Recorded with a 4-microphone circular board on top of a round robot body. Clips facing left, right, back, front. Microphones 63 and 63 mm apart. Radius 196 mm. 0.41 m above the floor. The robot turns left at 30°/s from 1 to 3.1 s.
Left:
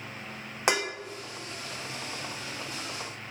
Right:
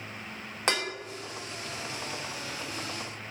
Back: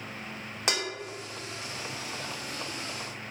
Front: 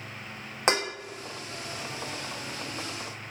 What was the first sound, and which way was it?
Dishes clattering, 25° left.